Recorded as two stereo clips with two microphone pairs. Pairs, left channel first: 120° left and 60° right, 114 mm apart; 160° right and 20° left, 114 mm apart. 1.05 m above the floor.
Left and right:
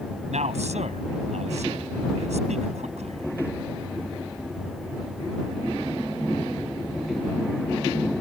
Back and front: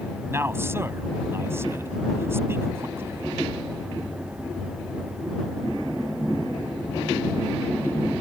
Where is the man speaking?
50° right.